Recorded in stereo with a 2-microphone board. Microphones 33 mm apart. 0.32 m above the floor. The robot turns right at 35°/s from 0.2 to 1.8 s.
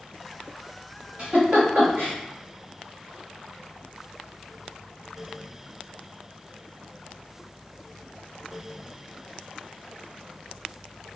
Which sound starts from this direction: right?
A giggle, at 1.2 s.